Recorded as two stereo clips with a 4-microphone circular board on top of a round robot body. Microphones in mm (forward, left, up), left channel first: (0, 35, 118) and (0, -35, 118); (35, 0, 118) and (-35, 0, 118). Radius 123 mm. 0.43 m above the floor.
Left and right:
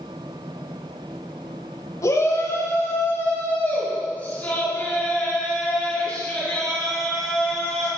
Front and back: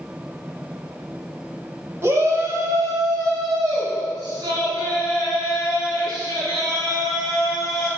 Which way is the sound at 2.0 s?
130° left.